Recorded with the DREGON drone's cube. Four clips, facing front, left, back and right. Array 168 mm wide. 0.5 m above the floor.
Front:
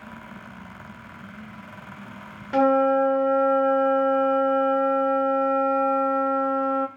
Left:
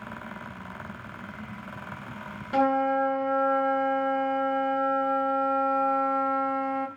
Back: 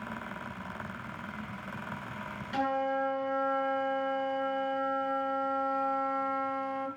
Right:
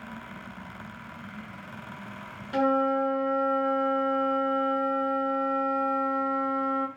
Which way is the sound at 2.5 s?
25° left.